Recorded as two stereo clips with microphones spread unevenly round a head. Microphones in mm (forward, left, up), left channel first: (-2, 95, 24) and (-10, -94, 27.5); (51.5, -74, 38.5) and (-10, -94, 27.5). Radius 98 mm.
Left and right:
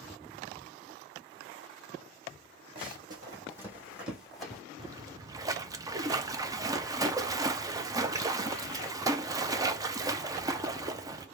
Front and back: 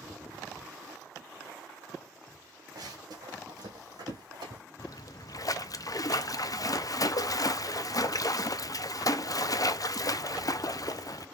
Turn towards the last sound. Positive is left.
turn(degrees=-20)